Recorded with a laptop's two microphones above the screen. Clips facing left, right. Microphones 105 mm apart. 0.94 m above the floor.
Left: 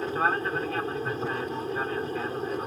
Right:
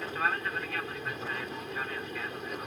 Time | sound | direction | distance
0.0 | an aircraft | 35° left (ahead or behind) | ?